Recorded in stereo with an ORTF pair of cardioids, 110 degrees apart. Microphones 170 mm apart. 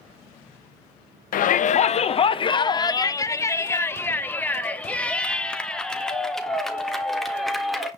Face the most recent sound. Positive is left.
turn(degrees=0)